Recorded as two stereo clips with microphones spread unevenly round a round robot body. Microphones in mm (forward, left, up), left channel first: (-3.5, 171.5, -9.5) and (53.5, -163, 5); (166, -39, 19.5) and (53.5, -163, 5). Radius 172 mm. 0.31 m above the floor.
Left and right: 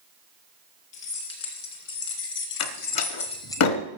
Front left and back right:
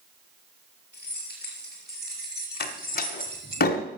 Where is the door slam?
70° left, 0.9 m.